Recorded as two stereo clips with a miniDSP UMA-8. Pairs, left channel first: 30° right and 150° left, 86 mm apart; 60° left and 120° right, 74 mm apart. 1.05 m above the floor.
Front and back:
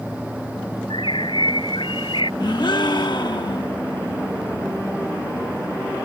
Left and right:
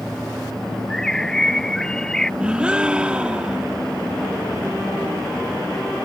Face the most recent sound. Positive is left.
turn(degrees=-45)